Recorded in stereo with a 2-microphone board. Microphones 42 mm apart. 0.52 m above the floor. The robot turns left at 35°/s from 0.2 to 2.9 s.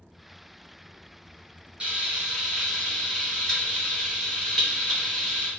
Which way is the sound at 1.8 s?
155° right.